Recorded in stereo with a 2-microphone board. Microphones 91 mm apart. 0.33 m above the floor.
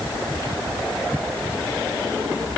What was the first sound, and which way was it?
Only background noise.